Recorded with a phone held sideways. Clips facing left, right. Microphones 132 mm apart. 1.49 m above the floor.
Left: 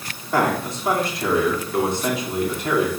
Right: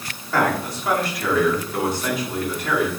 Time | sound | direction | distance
0.3 | a man speaking | 25° left (ahead or behind) | 4.5 m